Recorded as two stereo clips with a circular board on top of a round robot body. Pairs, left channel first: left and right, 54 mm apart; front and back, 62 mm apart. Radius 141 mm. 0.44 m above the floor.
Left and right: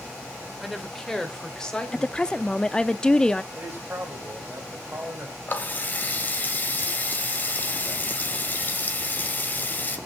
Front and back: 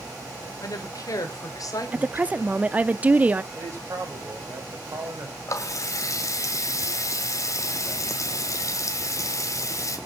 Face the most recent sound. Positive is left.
turn(degrees=35)